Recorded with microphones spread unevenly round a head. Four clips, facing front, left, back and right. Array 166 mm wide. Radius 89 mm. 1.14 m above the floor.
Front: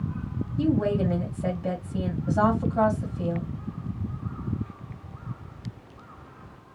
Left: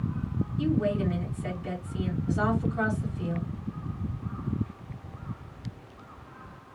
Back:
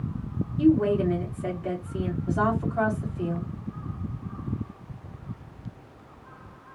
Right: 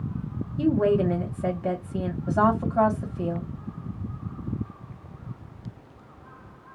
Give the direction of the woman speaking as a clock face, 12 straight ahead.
2 o'clock.